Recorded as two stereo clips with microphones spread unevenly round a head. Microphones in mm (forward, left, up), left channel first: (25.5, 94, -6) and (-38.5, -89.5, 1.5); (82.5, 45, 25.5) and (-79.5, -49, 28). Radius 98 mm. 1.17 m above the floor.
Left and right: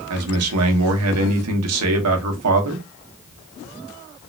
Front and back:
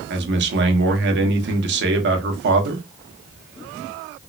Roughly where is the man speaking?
Behind right.